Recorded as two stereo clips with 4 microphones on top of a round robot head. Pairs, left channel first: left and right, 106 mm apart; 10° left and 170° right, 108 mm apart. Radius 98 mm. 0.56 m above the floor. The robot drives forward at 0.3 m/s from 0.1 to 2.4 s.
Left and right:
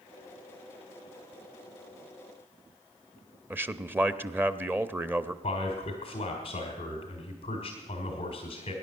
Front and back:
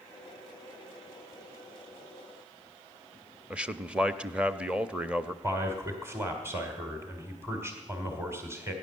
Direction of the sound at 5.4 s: 125° left.